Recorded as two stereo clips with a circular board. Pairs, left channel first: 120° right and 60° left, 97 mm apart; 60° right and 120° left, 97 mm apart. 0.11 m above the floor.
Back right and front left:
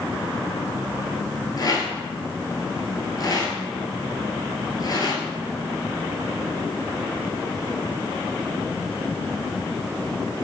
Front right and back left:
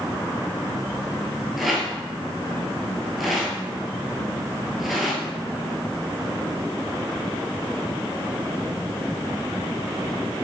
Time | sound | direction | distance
1.6 | a rattle | 150° right | 1.1 m